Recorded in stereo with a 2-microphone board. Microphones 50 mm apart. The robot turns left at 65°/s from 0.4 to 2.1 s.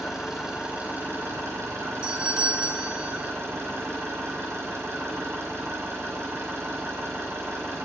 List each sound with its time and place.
0.0 s an engine running: 10° right, 6 m; by 7.8 s 120° right, 6 m
2.0 s a doorbell: 20° right (ahead or behind), 1.5 m